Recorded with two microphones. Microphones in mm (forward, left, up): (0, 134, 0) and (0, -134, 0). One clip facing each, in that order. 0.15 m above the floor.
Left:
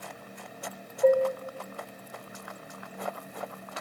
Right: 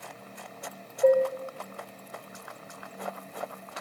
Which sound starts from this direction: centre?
Dishes clattering, at 1.0 s.